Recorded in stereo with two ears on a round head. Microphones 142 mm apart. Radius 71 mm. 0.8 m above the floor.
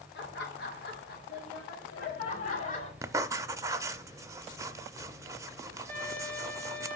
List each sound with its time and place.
0.1 s laughter: 70° left (ahead or behind), 3 m; by 2.9 s 50° left (ahead or behind), 4 m
3.0 s writing: 20° right (ahead or behind), 0.5 m
5.9 s a violin: 10° left (ahead or behind), 4.5 m